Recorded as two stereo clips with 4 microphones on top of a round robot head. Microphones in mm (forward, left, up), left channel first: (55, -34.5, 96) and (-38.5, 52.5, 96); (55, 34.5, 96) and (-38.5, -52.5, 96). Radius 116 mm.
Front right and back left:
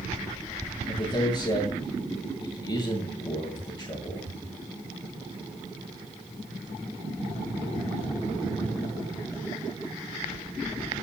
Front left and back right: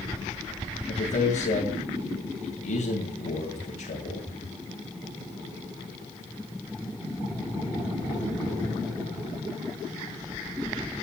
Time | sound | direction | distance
0.9 | a man speaking | 15° left | 8 m